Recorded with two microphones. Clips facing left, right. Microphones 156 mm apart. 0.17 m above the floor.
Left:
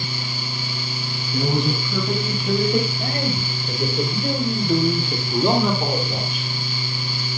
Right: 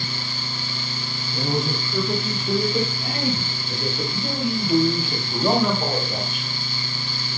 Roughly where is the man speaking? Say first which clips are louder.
Left 3 dB; left.